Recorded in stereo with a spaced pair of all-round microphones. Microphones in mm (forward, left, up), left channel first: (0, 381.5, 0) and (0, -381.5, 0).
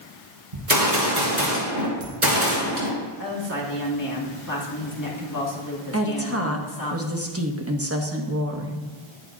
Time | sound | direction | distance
0.5 | a gunshot | 65° right (ahead or behind) | 2.5 m
3.2 | a woman speaking | 25° left (ahead or behind) | 1.8 m
5.9 | a woman speaking | 20° right (ahead or behind) | 1.1 m